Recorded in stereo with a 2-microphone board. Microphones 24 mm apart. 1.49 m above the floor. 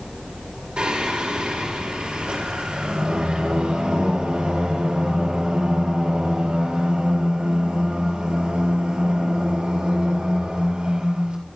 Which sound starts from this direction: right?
Singing, at 0.8 s.